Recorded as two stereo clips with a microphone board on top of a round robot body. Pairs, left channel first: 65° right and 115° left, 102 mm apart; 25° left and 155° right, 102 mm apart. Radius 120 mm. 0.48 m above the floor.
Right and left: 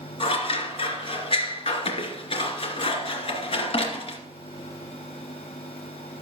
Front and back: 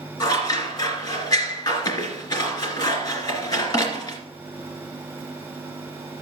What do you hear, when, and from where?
0.2 s scissors: 35° right, 2.5 m